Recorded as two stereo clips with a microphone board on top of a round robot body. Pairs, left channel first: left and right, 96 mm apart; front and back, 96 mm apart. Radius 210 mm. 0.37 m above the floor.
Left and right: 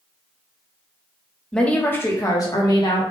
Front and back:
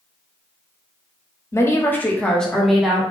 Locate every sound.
1.5 s a woman speaking: 15° left, 1.2 m; by 3.0 s 95° left, 1.5 m